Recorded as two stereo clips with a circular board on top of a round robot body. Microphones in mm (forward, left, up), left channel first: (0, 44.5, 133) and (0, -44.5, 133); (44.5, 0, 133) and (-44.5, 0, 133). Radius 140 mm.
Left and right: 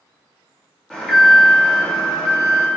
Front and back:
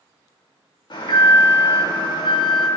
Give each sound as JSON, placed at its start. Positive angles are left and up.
{"t": 0.9, "sound": "an alarm", "azimuth_deg": 10, "distance_m": 1.9}